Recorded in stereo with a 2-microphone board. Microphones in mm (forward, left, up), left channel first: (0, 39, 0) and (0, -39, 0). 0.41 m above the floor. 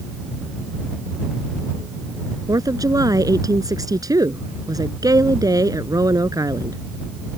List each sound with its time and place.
2.5 s a woman speaking: 50° right (ahead or behind)